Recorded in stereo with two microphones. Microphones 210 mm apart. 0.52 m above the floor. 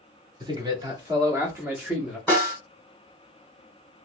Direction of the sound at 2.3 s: 10° left (ahead or behind).